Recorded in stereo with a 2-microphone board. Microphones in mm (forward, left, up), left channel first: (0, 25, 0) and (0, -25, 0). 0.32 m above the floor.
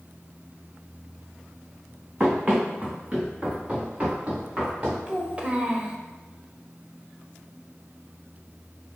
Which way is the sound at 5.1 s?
20° right (ahead or behind).